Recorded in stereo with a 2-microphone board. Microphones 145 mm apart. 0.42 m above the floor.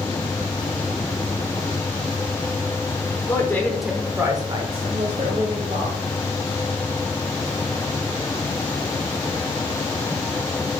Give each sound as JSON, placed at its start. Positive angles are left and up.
{"t": 3.3, "sound": "a woman speaking", "side_deg": 25, "distance_m": 1.0}